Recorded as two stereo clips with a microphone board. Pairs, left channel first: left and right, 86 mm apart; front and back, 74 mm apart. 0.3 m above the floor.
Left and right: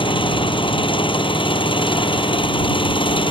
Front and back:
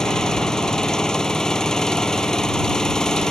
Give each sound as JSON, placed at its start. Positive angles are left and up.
{"t": 0.0, "sound": "an engine running", "azimuth_deg": 85}